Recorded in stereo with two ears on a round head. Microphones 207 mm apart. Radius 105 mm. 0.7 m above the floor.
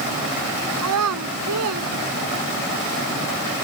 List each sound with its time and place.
0.8 s a child speaking: 85° right; by 2.7 s 75° right (ahead or behind)